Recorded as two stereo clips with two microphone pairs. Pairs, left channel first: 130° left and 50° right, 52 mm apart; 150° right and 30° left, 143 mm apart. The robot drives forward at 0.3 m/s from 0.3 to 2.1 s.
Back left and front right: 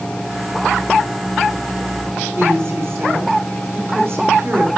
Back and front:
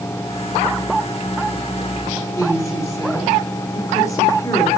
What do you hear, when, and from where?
2.4 s a woman speaking: 90° right, 6 m